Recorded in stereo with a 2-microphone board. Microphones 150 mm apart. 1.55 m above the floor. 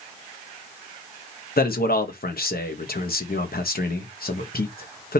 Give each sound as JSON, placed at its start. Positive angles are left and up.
{"t": 1.6, "sound": "a man speaking", "side_deg": 85, "distance_m": 1.2}